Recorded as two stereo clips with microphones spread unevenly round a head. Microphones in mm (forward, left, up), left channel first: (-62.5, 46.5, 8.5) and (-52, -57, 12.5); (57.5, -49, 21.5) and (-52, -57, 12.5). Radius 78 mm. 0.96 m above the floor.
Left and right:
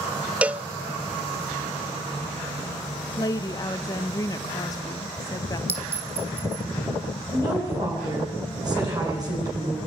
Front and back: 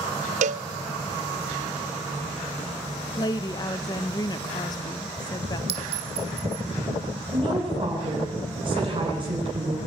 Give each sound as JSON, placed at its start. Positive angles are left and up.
{"t": 0.4, "sound": "a cowbell", "azimuth_deg": -160, "distance_m": 0.6}
{"t": 3.2, "sound": "a woman speaking", "azimuth_deg": 55, "distance_m": 0.9}
{"t": 5.7, "sound": "a clink", "azimuth_deg": -150, "distance_m": 2.5}
{"t": 7.3, "sound": "a woman speaking", "azimuth_deg": -135, "distance_m": 9.5}